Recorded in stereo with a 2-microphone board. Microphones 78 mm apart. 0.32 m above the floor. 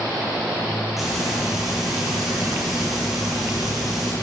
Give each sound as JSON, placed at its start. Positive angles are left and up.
{"t": 1.0, "sound": "frying", "side_deg": -5, "distance_m": 8.5}